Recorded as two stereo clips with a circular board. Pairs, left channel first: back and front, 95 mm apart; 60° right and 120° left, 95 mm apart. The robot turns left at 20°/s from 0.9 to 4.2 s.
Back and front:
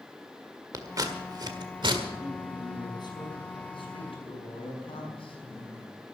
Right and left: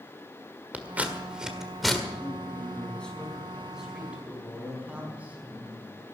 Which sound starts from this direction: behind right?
A man speaking, at 2.2 s.